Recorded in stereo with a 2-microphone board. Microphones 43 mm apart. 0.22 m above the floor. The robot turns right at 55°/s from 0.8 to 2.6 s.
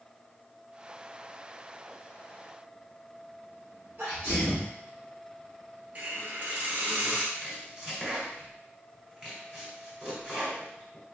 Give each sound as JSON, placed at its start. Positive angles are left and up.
{"t": 4.0, "sound": "a sneeze", "side_deg": -45, "distance_m": 1.7}
{"t": 6.0, "sound": "a hiss", "side_deg": -45, "distance_m": 1.0}
{"t": 7.3, "sound": "chopping", "side_deg": -15, "distance_m": 1.2}